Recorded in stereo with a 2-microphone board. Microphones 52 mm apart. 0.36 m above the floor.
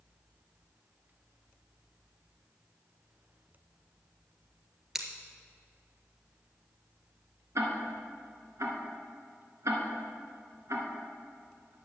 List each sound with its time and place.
5.0 s scissors: 10° right (ahead or behind), 1.5 m
7.5 s ticking: 85° right, 2 m